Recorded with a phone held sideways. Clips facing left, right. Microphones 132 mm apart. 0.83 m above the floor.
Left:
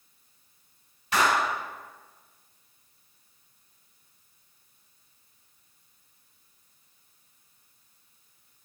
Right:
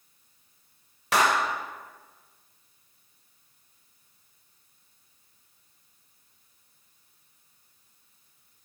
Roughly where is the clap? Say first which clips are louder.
Right 1 dB; right.